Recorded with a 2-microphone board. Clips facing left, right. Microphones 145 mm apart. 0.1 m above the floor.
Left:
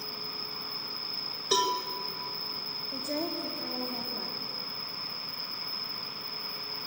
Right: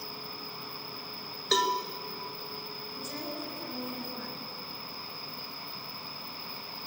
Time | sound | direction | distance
0.0 | an insect | 80° left | 2.5 m
1.5 | a cowbell | 10° left (ahead or behind) | 1.4 m
2.9 | a woman speaking | 65° left (ahead or behind) | 6 m